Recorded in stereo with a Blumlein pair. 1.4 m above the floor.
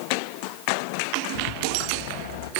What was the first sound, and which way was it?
A rattle, 50° left.